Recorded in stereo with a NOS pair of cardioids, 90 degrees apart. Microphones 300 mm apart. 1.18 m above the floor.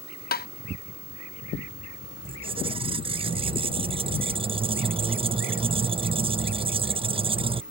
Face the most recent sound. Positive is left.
turn(degrees=-20)